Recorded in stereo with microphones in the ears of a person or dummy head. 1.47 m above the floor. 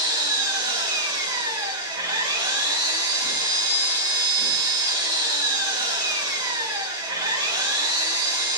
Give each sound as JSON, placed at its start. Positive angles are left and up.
{"t": 0.0, "sound": "an engine running", "side_deg": -25, "distance_m": 1.7}